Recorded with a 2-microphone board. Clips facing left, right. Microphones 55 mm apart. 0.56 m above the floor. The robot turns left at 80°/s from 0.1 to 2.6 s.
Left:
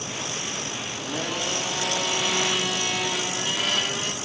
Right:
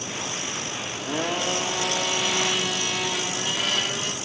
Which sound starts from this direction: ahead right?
A blender, at 0.9 s.